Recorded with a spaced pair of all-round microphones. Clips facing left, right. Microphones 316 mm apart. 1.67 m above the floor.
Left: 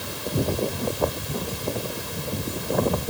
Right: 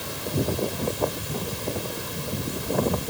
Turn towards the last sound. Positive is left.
No sound to turn to.